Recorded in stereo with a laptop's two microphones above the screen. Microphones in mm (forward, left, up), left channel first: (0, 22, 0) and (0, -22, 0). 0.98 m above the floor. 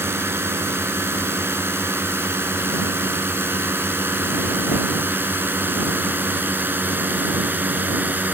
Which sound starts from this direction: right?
A drone, at 0.0 s.